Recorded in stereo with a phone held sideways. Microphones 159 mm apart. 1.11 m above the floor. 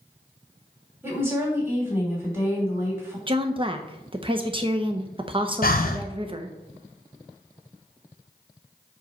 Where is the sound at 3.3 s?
30° right (ahead or behind), 0.7 m.